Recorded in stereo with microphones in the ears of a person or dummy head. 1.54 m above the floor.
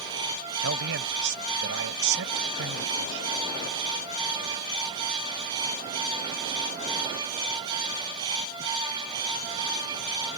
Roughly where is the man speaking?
Right.